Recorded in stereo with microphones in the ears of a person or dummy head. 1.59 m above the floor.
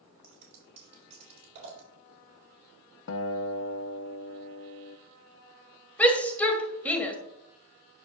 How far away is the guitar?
About 0.6 m.